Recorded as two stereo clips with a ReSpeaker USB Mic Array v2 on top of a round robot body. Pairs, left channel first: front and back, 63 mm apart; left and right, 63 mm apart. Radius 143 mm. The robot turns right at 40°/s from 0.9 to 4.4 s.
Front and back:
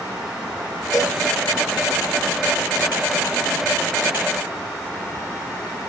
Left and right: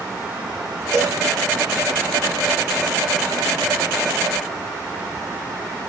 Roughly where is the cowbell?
Ahead right.